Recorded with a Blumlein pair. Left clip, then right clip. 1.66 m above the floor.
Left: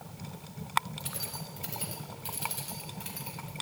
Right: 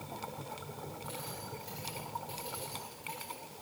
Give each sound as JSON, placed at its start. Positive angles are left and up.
{"t": 1.0, "sound": "keys jangling", "azimuth_deg": 50, "distance_m": 5.5}